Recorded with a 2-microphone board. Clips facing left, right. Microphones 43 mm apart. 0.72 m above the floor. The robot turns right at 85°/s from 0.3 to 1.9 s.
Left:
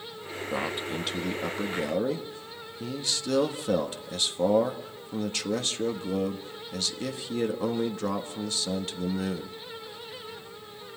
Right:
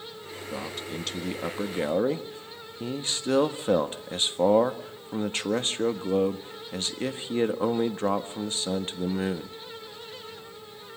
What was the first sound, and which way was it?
A man speaking, 120° left.